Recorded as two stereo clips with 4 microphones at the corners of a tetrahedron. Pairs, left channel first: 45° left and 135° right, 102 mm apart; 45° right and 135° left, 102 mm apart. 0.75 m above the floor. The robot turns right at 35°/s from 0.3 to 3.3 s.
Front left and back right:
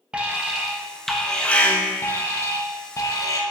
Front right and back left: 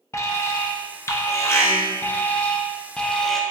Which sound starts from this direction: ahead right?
An alarm, at 0.1 s.